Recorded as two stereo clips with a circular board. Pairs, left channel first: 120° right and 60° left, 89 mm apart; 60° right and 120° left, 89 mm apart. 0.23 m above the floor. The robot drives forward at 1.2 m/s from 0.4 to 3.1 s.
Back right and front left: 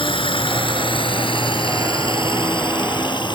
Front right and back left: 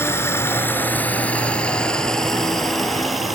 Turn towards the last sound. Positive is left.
turn(degrees=-150)